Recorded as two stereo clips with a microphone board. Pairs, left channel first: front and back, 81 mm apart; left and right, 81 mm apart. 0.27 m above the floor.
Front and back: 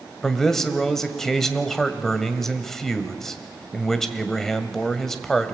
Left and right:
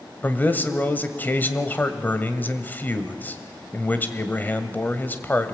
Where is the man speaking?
80° left, 1.4 m.